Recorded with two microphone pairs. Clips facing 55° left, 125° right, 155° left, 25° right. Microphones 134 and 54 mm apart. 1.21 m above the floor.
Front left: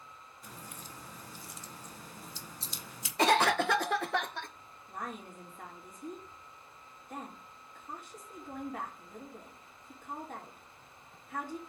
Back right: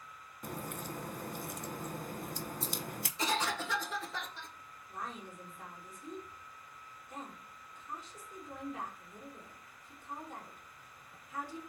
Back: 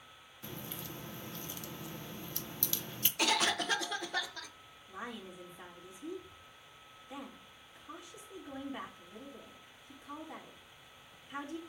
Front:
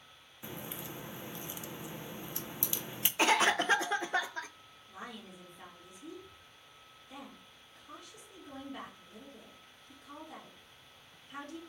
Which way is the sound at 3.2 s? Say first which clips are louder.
Front left 9 dB, front 5 dB; 35° left.